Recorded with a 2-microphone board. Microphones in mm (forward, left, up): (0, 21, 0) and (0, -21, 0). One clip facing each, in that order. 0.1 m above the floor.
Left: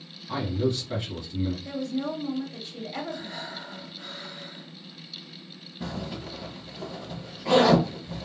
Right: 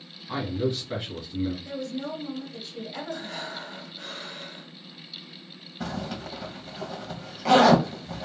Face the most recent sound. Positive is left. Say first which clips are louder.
# right 2 dB
turn(degrees=-75)  # may be behind; listen again after turning